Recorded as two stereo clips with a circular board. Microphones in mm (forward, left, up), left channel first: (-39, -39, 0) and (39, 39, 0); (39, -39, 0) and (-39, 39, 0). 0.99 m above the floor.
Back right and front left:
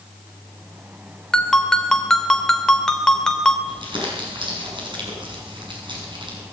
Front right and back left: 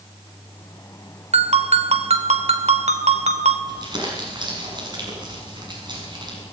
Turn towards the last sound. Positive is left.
turn(degrees=85)